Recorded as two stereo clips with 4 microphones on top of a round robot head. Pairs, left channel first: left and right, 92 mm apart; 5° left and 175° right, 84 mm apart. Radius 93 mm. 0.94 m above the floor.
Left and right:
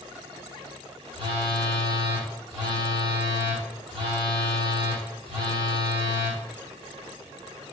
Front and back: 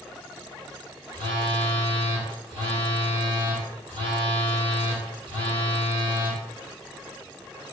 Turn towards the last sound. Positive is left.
turn(degrees=-135)